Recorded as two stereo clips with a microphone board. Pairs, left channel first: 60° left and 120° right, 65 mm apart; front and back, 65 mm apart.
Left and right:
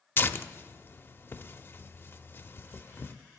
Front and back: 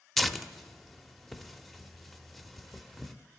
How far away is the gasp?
No gasp in this recording.